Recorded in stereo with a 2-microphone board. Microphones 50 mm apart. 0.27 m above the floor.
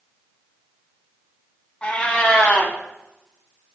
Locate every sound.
1.8 s a cat meowing: 25° left (ahead or behind), 0.5 m